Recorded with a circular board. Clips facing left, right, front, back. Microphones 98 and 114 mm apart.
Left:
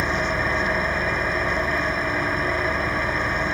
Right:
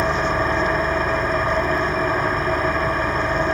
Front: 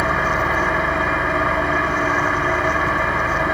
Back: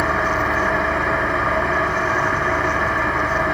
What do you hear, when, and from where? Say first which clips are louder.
0.0 s an engine running: right 4 dB, even; 90° right, 0.8 m